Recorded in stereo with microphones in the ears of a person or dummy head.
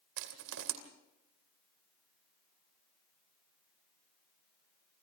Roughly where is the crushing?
Right.